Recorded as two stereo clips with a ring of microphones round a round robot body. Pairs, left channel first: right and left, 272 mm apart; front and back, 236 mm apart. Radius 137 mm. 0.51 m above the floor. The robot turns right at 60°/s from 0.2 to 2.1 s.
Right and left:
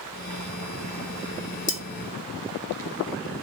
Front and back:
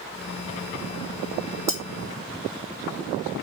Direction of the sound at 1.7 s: 65° right.